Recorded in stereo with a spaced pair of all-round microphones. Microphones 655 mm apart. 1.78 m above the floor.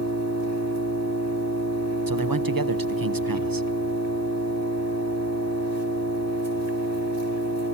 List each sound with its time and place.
0.0 s an engine running: 25° right (ahead or behind), 4 m
2.1 s a man speaking: 35° right (ahead or behind), 0.9 m